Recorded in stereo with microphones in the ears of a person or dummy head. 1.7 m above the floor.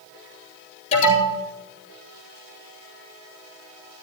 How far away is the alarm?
About 5 m.